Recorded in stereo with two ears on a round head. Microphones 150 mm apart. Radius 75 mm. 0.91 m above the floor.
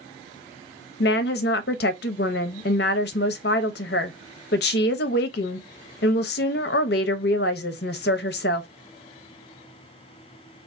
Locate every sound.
1.0 s a woman speaking: 65° left (ahead or behind), 0.5 m